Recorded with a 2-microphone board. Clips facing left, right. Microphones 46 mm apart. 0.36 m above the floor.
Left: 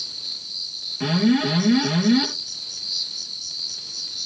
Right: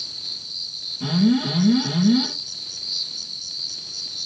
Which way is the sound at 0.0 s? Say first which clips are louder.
Even; centre (ahead or behind).